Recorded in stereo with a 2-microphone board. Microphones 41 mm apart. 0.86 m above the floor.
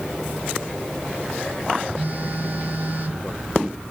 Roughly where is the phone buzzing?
Right.